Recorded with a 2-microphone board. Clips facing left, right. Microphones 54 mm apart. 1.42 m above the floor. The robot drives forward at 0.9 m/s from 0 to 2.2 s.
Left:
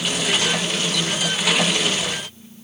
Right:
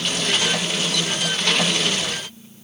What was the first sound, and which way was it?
Only background noise.